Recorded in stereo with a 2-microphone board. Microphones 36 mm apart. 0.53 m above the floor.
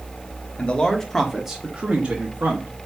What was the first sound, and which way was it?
A man speaking, 35° left (ahead or behind).